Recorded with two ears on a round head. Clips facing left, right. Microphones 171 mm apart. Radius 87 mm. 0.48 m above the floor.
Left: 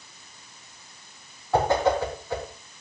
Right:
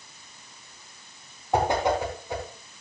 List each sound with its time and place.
1.5 s a whoosh: 15° right (ahead or behind), 3.5 m